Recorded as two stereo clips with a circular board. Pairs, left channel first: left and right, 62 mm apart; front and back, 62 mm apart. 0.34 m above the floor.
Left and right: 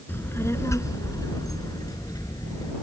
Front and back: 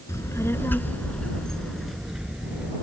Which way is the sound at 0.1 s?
35° left.